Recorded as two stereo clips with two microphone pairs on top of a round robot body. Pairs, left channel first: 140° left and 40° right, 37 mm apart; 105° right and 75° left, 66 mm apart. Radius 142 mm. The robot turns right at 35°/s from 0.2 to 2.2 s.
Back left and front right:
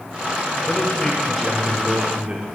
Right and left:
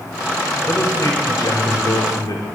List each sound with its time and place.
0.7 s a man speaking: 145° right, 2 m; by 2.4 s 90° right, 2 m